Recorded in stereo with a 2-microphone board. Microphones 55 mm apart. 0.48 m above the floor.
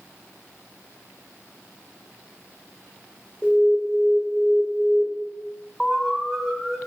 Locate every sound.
3.4 s an alarm: 20° left (ahead or behind), 1.9 m
5.8 s an alarm: centre (ahead or behind), 1.6 m